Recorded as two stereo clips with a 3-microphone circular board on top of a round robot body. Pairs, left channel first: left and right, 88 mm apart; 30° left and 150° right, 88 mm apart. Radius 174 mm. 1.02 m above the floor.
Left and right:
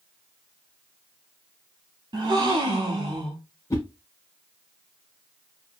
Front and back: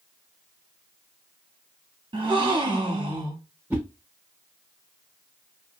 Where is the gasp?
120° right, 0.8 m.